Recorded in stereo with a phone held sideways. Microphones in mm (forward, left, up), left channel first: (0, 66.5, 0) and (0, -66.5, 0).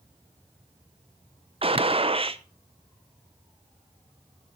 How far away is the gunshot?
About 0.5 m.